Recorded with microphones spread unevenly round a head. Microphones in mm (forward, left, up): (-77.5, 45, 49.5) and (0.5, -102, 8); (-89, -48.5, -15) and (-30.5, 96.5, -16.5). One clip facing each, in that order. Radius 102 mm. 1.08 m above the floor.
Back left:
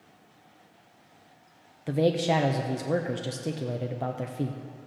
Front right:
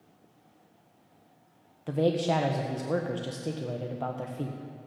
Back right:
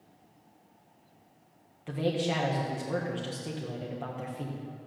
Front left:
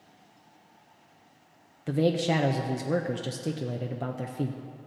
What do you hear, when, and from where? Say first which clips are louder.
1.9 s a man speaking: back left 2 dB, front left 5 dB; 30° left, 0.5 m